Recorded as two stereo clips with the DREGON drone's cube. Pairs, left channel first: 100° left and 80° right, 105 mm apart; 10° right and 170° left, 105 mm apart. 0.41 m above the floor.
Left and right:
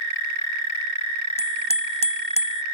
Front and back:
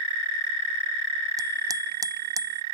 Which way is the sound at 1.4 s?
115° left.